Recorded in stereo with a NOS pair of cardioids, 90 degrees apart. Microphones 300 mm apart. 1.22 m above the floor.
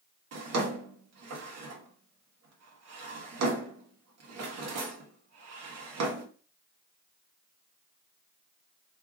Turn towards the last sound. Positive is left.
turn(degrees=-55)